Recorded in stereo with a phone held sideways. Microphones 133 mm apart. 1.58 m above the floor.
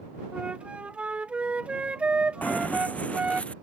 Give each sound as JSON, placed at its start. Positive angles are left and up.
{"t": 0.3, "sound": "a flute", "side_deg": -10}
{"t": 2.4, "sound": "running footsteps", "side_deg": 10}